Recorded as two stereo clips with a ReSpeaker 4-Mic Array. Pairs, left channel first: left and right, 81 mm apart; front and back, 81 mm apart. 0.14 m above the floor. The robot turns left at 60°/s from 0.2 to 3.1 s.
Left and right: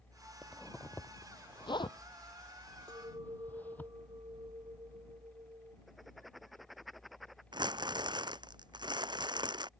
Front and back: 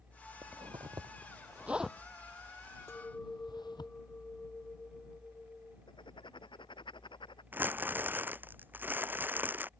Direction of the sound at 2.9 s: 60° right.